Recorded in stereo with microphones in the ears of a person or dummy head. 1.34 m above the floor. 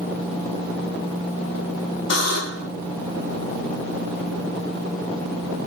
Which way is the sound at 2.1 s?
80° left.